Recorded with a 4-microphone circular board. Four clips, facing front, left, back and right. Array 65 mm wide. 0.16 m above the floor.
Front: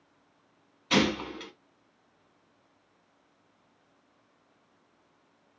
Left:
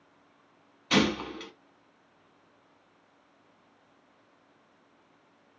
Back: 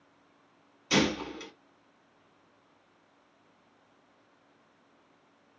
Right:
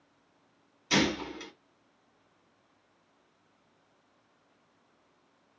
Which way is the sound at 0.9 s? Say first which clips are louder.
Left 2 dB, front 1 dB; 55° left.